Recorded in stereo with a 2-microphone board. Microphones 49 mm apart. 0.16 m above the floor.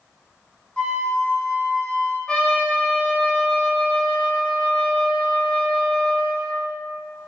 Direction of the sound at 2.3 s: 15° left (ahead or behind).